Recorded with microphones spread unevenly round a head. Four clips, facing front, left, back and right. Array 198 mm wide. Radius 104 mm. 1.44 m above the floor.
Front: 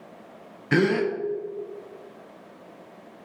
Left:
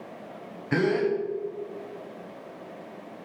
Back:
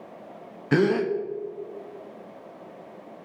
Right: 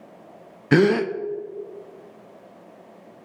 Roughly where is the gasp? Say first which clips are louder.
Right 6 dB, even; right.